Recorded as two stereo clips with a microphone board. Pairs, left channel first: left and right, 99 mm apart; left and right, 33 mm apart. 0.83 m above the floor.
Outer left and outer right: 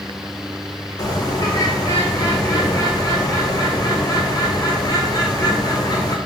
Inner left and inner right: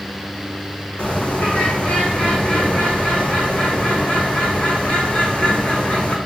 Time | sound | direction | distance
1.0 | a bird | 40° left (ahead or behind) | 1.7 m